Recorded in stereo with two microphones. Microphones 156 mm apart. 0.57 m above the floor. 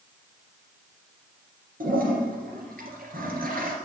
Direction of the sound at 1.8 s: 85° right.